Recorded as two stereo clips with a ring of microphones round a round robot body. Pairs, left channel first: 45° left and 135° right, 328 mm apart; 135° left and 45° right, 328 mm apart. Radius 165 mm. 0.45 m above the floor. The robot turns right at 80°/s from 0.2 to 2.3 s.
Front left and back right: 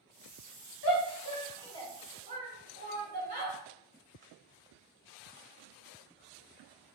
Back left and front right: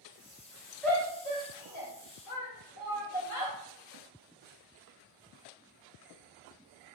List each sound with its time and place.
0.8 s a shout: 45° left, 1.4 m; by 3.5 s 165° left, 1.4 m